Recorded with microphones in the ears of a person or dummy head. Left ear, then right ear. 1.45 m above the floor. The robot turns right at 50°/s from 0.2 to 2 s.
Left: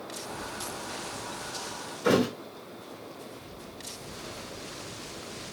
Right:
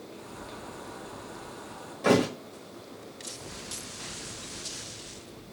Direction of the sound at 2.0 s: 20° right (ahead or behind).